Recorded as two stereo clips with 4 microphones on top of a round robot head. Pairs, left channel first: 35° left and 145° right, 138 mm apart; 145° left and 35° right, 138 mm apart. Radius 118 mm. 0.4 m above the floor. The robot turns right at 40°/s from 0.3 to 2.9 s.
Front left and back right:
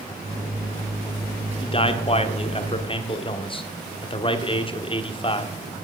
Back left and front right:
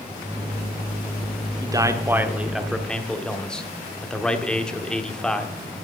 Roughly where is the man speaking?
Ahead.